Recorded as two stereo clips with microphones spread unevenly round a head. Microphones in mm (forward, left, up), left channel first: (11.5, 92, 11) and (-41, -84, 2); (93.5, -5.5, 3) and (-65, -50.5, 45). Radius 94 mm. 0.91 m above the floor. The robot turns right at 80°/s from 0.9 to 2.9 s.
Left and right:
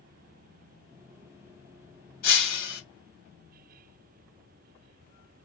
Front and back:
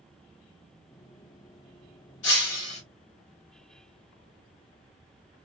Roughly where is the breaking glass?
Ahead left.